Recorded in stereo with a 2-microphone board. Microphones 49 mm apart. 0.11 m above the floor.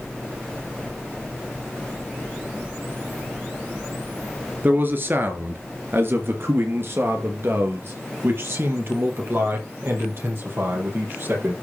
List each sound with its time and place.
4.6 s a man speaking: 40° right (ahead or behind), 2 m; by 11.5 s 50° right (ahead or behind), 5 m